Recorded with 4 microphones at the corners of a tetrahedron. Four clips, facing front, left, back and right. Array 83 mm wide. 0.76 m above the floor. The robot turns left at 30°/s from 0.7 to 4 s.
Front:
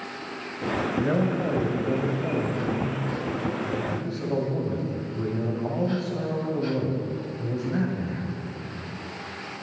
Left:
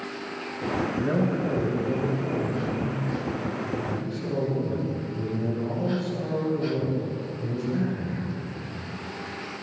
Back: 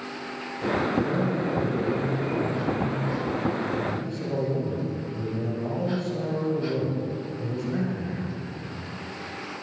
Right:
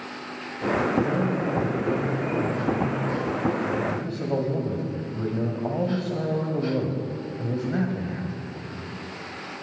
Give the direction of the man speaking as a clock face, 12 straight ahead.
11 o'clock.